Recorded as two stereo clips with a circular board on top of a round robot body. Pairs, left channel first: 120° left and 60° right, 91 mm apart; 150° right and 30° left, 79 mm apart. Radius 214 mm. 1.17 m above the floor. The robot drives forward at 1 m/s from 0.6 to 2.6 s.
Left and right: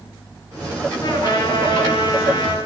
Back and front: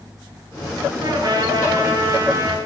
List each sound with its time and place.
1.0 s a trumpet: 75° left, 9.5 m; by 2.6 s 85° left, 9 m